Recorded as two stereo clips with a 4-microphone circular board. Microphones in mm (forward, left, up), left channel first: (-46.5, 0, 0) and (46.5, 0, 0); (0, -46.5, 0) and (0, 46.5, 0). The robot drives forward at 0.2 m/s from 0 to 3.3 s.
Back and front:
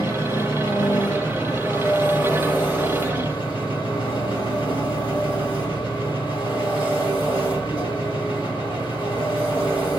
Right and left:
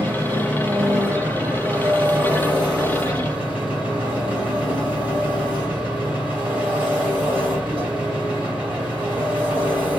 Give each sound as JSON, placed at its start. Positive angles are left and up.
{"t": 0.0, "sound": "an engine running", "azimuth_deg": 150, "distance_m": 2.5}